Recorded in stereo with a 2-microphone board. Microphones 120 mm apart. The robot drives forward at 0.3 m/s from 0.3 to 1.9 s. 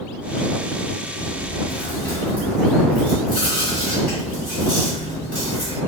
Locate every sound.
1.2 s chewing: 10° left (ahead or behind), 1.2 m